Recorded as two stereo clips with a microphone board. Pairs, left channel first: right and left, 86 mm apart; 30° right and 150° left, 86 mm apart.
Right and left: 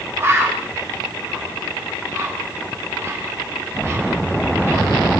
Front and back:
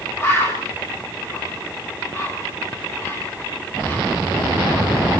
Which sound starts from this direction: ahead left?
A bird, at 0.2 s.